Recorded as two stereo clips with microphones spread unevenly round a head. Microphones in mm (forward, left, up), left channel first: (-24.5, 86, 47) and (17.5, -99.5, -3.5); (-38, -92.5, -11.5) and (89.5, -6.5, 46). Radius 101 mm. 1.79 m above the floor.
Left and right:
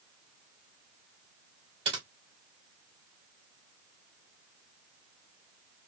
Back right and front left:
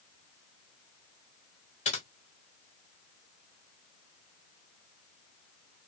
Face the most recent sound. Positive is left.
turn(degrees=-135)